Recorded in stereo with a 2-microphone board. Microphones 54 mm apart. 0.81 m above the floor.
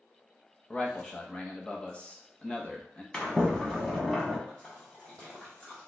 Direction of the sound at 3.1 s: 15° left (ahead or behind).